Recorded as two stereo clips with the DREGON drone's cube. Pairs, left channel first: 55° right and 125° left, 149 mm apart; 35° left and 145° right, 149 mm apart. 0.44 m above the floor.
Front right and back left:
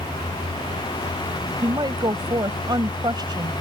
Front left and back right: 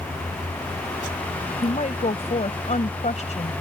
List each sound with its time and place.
1.6 s a woman speaking: 65° left